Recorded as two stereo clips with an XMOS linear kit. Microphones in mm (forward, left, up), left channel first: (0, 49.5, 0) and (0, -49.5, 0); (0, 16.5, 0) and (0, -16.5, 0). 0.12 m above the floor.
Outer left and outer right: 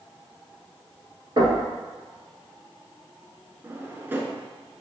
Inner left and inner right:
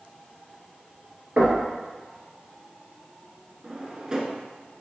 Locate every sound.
1.4 s knocking: 45° right (ahead or behind), 1.7 m
3.6 s a drawer: 20° right (ahead or behind), 0.7 m